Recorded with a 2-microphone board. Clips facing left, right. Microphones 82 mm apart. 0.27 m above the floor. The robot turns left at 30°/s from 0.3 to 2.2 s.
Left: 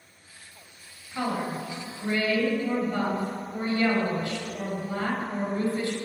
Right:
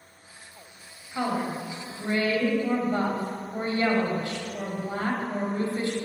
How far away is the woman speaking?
About 1.5 m.